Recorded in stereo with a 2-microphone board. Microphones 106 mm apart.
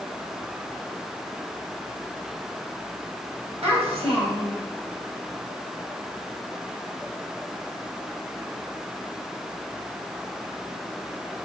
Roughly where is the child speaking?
Right.